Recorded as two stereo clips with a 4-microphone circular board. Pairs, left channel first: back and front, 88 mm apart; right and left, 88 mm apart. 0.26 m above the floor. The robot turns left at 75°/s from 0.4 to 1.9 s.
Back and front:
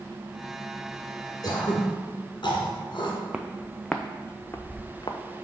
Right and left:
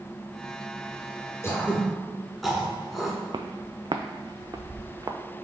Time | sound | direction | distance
1.4 | throat clearing | 145° right | 1.6 m
3.3 | footsteps | 75° left | 0.7 m